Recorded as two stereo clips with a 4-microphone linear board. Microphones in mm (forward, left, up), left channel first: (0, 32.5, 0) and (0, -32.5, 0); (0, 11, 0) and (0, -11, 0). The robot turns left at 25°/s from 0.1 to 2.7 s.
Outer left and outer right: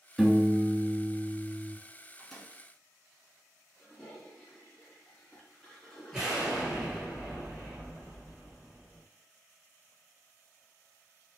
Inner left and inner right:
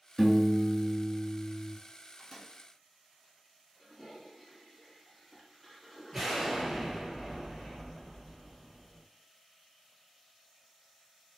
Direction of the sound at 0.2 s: Straight ahead.